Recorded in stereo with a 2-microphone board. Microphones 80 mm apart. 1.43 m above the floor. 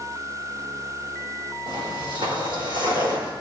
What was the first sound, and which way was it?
Footsteps, 70° right (ahead or behind).